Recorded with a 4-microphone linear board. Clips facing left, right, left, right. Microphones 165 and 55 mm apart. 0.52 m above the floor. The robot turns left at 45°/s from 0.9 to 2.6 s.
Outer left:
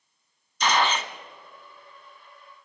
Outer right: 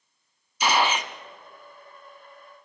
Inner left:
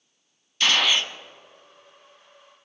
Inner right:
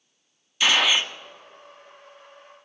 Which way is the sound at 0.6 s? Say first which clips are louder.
Outer right 1 dB, inner right 1 dB; 10° right (ahead or behind).